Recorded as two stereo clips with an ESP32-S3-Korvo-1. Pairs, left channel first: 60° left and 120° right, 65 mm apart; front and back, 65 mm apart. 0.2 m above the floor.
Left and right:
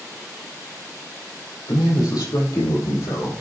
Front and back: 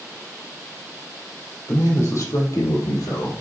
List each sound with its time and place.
1.7 s a man speaking: 50° left, 5.5 m; by 3.3 s 35° left, 5.5 m